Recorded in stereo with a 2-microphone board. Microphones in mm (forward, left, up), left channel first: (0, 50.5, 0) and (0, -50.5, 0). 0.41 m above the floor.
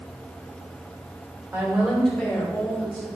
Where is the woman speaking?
25° right (ahead or behind), 1.3 m; by 3.1 s 50° left (ahead or behind), 1.8 m.